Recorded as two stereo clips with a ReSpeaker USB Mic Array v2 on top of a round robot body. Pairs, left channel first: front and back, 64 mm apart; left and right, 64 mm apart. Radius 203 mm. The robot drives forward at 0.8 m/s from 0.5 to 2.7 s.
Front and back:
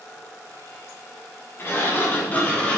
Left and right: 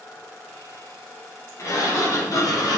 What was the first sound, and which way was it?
A sliding door, 50° left.